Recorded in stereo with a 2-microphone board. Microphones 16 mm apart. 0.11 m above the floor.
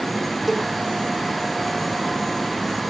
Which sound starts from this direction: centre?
A cowbell, at 0.5 s.